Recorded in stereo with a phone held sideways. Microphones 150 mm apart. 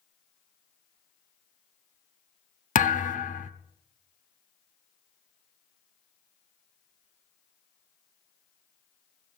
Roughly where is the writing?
I don't hear writing.